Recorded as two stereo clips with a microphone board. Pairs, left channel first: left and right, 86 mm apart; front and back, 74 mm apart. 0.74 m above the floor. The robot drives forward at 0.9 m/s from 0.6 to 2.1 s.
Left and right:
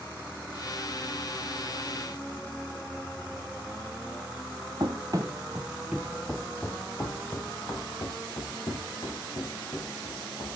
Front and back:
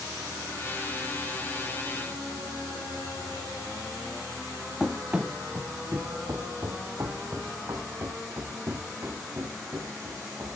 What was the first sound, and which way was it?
Running footsteps, 100° right.